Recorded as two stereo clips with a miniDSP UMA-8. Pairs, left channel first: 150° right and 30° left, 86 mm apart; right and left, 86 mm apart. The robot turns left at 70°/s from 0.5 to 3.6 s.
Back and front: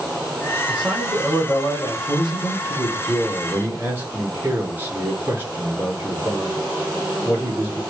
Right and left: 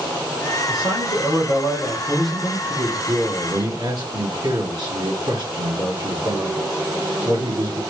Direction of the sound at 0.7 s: 35° right.